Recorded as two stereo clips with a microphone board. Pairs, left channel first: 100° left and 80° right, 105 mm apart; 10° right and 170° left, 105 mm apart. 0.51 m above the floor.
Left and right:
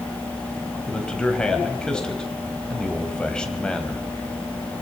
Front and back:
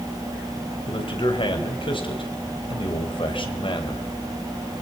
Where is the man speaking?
20° left, 3.5 m.